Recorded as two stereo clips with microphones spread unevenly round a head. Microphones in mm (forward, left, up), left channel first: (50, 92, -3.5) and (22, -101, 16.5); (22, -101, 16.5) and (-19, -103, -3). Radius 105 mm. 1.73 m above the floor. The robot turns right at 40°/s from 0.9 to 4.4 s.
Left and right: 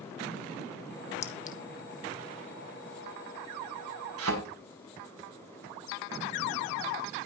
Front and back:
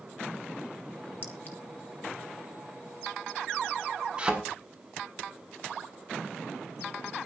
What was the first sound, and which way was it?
A clink, 25° left.